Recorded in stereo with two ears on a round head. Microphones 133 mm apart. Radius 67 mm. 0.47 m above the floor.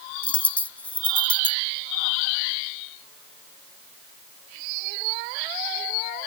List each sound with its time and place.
0.2 s a dropped coin: 10° left (ahead or behind)